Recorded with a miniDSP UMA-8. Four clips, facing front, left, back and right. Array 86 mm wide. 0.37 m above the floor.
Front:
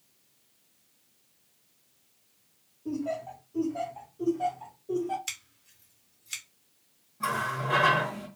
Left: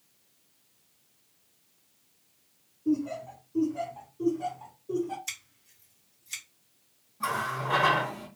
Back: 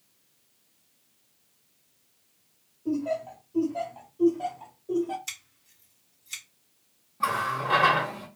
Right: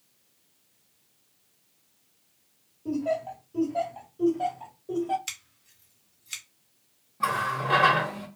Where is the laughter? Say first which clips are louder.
Right 1 dB, back 4 dB; 100° right, 1.2 m.